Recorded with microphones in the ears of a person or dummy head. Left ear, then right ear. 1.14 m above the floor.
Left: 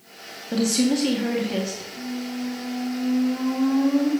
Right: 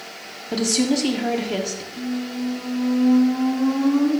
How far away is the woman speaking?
About 0.9 m.